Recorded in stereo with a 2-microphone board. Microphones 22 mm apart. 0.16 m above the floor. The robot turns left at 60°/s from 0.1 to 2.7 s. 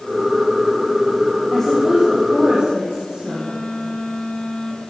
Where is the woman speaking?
15° left, 7.5 m; by 3.6 s 60° right, 7.5 m.